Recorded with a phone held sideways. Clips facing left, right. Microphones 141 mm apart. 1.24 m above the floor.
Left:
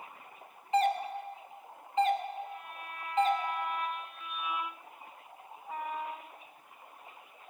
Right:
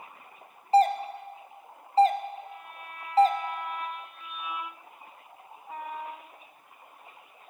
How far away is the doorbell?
About 0.5 m.